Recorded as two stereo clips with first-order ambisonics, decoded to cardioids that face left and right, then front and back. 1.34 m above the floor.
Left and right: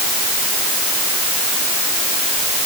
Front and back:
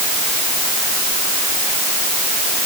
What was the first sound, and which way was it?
Only background noise.